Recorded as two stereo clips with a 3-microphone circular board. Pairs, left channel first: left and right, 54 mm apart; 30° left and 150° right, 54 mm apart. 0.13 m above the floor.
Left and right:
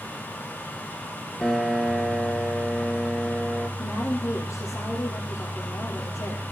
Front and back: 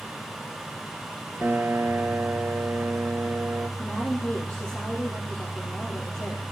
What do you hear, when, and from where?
1.4 s a piano: 175° left, 1.1 m
3.8 s a woman speaking: 75° left, 3 m